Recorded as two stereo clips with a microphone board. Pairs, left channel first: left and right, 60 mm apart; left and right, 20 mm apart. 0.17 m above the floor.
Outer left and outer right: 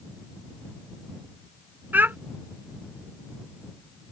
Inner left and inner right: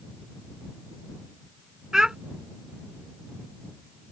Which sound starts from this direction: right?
A child speaking, at 1.9 s.